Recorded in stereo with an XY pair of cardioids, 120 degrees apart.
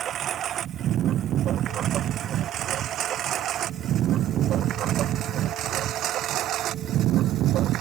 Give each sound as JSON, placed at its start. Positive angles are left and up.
{"t": 0.0, "sound": "a lawn mower", "azimuth_deg": -55}